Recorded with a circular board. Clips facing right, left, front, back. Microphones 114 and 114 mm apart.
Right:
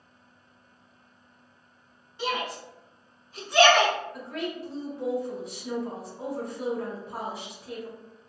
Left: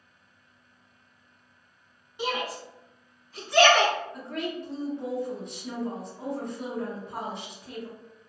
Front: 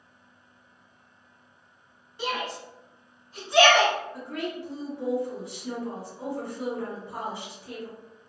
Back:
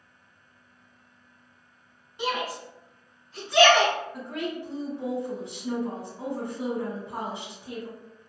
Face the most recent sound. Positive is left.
turn(degrees=-165)